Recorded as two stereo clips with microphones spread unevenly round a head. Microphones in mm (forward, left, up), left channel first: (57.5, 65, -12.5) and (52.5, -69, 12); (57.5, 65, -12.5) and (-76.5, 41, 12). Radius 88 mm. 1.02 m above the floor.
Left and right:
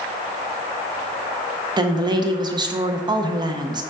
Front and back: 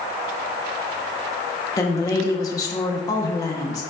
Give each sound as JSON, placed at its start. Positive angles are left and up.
{"t": 1.8, "sound": "a woman speaking", "azimuth_deg": -35, "distance_m": 0.6}